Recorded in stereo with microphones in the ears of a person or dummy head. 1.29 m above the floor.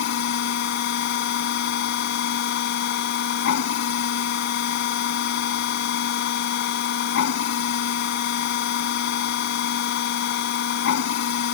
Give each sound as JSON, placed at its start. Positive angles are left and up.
{"t": 0.0, "sound": "a machine running", "side_deg": 65}